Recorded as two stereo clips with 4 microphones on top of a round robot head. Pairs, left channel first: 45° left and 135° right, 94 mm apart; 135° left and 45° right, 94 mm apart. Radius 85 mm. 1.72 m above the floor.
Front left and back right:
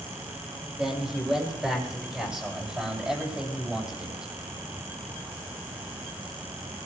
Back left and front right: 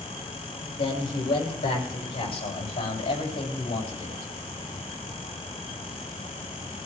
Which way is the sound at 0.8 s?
140° left.